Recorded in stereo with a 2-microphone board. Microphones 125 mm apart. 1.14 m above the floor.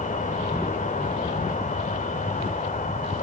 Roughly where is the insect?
Left.